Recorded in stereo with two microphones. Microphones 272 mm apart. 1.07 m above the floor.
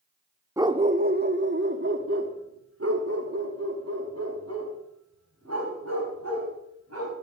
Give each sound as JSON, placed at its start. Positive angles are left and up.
{"t": 0.6, "sound": "a dog barking", "side_deg": -10, "distance_m": 0.5}